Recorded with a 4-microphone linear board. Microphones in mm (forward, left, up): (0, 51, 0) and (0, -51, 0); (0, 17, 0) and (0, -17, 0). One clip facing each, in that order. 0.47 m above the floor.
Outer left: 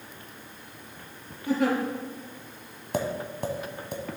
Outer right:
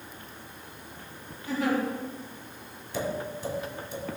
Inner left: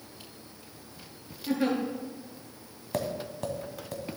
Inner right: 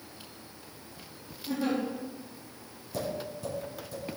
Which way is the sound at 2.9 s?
65° left (ahead or behind).